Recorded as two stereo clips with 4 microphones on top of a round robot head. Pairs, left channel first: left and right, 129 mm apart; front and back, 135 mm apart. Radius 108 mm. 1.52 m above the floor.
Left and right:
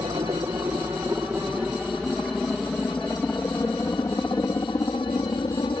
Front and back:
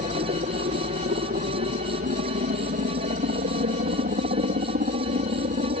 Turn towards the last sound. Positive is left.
turn(degrees=160)